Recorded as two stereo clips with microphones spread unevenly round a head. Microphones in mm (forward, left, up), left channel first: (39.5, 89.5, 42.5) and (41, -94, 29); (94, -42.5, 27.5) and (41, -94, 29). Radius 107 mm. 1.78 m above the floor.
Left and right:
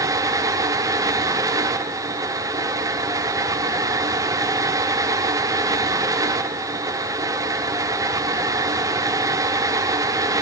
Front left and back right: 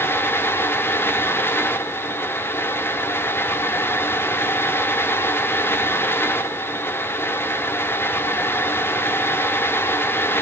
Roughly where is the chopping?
No chopping in this recording.